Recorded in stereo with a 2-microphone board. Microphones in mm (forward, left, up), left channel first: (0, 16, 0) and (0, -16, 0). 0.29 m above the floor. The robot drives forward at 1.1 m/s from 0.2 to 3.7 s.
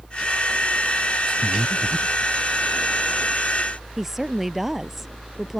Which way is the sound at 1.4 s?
65° left (ahead or behind).